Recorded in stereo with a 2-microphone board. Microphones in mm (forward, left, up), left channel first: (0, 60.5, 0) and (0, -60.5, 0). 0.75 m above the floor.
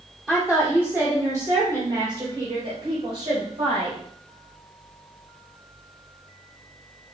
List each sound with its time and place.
0.3 s a woman speaking: 5° right (ahead or behind), 1.8 m; by 4.0 s 60° right (ahead or behind), 3.5 m